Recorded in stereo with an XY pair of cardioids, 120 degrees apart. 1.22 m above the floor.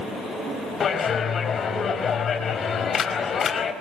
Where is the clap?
40° left, 4.5 m.